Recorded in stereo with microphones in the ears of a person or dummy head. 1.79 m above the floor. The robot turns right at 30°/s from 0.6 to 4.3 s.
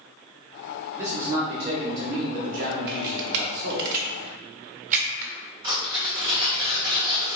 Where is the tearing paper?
25° right (ahead or behind), 1.8 m.